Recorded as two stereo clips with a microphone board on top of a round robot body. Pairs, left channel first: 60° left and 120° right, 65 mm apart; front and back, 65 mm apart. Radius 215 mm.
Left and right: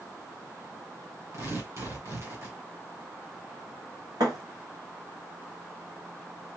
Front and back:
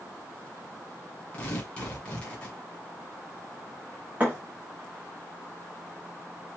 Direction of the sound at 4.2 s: 120° right.